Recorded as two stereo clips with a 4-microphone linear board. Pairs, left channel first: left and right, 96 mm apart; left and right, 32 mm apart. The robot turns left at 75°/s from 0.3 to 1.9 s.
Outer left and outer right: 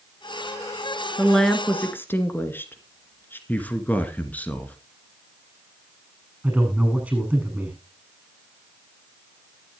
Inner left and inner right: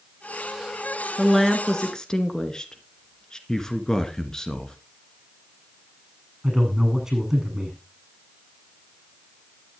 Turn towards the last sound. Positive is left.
turn(degrees=-10)  # may be behind; listen again after turning